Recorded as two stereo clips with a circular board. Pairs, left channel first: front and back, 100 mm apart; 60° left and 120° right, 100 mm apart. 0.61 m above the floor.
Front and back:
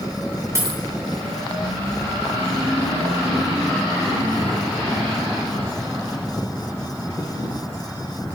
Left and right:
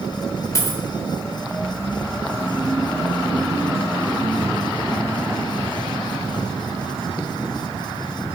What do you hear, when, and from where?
0.6 s a dropped coin: 120° left, 0.8 m